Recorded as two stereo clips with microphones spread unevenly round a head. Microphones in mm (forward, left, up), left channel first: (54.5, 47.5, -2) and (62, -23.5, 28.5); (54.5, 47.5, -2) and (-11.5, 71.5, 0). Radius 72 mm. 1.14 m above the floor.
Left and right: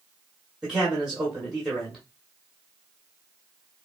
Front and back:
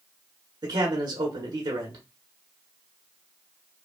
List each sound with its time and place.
0.6 s a man speaking: 175° left, 1.1 m